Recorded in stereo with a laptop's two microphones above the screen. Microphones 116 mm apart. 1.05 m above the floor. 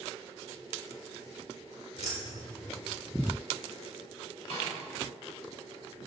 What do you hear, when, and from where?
2.0 s keys jangling: 80° left, 2.5 m
4.5 s a snare drum: 60° left (ahead or behind), 5.5 m